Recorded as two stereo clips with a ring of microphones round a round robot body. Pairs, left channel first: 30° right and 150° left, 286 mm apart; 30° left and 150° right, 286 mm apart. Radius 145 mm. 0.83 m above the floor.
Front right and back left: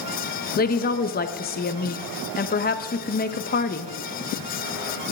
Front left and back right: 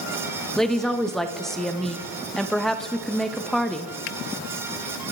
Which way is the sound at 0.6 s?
60° right.